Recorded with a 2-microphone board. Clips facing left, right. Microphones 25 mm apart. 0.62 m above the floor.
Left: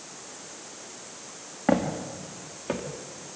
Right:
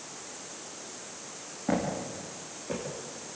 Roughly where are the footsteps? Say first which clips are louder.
Left 5 dB; left.